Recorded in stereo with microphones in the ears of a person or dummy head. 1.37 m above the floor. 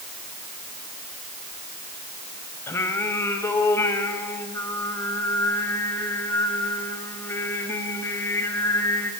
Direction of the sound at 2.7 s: 20° left (ahead or behind).